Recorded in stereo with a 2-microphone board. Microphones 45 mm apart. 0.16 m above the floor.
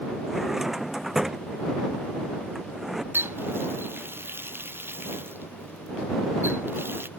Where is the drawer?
5° right (ahead or behind).